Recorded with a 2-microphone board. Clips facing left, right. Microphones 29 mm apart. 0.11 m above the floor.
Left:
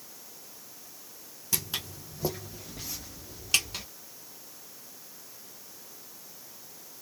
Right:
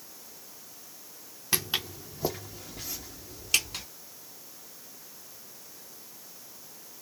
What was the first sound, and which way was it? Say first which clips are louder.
Footsteps: right 4 dB; 40° right (ahead or behind).